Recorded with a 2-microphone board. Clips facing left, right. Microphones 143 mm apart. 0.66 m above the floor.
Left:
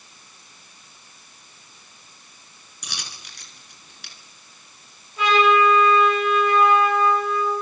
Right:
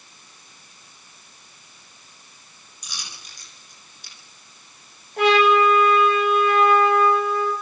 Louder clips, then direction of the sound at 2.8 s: Left 2 dB; 70° left (ahead or behind).